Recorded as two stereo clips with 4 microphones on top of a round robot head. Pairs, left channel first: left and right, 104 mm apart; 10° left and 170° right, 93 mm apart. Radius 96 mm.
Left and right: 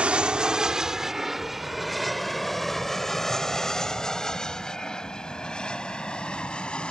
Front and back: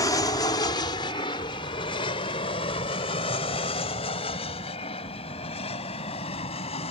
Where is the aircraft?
15° right; by 6.9 s 10° left.